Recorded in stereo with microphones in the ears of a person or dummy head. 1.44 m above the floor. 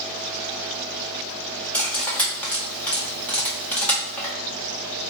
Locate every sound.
1.7 s cutlery clinking: 5° left (ahead or behind), 1.0 m